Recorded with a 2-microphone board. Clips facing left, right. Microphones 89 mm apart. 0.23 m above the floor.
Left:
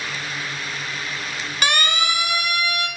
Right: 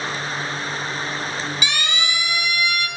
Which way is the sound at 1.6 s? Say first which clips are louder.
Left 4 dB; 50° left (ahead or behind).